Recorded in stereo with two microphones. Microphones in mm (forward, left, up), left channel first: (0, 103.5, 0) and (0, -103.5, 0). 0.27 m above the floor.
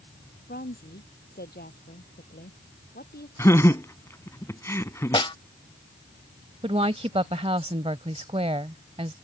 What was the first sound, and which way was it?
A woman speaking, 50° left (ahead or behind).